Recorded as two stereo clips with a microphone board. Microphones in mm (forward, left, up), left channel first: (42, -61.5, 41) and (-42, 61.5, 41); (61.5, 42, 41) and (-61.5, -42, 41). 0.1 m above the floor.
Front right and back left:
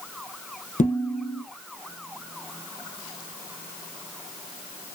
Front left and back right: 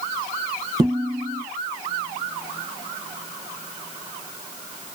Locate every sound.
0.8 s dishes clattering: 85° right, 3.5 m